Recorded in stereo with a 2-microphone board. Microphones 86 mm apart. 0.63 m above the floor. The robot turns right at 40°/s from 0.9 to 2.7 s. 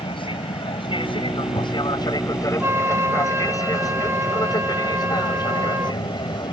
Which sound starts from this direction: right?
A flute, at 2.6 s.